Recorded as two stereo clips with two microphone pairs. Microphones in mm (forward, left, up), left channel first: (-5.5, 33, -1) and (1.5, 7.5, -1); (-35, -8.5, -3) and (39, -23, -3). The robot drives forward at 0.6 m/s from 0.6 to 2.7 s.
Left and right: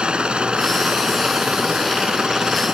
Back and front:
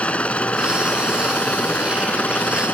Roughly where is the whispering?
No whispering in this recording.